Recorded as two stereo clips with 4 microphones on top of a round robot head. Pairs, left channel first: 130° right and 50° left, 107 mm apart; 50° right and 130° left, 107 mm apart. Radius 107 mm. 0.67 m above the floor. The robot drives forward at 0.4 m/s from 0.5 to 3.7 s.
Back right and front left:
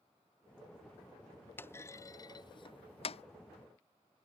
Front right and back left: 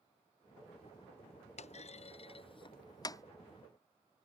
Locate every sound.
1.6 s a clunk: 60° right; by 3.2 s 110° right